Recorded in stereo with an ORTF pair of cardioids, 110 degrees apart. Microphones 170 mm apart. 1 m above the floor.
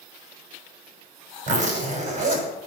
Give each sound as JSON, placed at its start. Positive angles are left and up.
{"t": 1.5, "sound": "a zipper", "azimuth_deg": -50, "distance_m": 6.0}